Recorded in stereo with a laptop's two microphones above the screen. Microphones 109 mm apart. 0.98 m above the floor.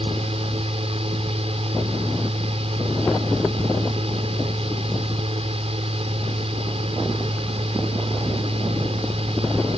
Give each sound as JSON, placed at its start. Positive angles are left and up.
{"t": 0.0, "sound": "a fan", "side_deg": -70}